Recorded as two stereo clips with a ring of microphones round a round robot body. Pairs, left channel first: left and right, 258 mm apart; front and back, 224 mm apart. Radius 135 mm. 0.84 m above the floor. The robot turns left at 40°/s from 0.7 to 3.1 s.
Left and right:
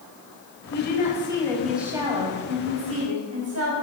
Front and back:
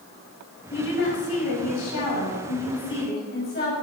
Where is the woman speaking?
40° left, 4.5 m; by 3.8 s 55° right, 4.5 m.